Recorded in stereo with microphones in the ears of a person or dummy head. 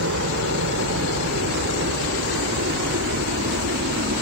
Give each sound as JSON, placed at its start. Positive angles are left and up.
{"t": 0.0, "sound": "a helicopter", "side_deg": -70}